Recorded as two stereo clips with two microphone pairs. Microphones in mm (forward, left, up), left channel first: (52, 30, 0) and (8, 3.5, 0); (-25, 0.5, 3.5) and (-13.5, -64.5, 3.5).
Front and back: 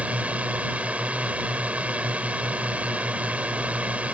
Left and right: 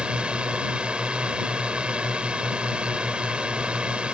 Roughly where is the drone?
Behind right.